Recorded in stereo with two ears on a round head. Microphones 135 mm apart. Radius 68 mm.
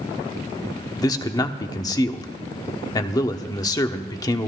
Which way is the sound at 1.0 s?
25° left (ahead or behind).